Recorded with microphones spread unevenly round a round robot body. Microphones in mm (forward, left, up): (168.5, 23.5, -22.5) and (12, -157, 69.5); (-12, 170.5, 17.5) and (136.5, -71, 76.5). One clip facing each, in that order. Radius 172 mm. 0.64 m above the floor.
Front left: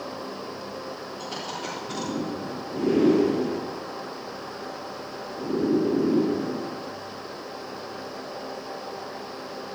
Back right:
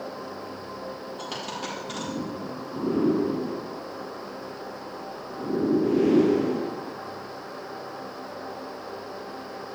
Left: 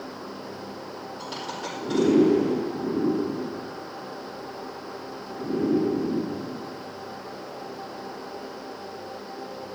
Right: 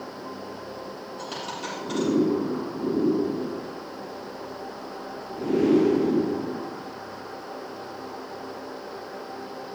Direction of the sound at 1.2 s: 105° right.